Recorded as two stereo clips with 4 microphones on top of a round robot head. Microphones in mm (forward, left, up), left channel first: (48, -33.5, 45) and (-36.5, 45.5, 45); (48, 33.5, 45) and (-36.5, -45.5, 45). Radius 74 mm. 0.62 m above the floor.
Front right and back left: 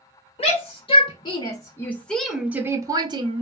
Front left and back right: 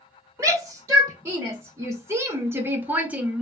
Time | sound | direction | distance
0.4 | a shout | 70° right | 1.2 m